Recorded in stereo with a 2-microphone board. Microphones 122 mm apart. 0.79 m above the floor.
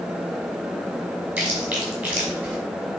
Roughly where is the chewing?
Centre.